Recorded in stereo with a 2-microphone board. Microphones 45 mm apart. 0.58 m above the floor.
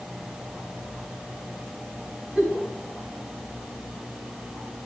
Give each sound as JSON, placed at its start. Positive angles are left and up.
{"t": 2.4, "sound": "a giggle", "side_deg": -25, "distance_m": 5.5}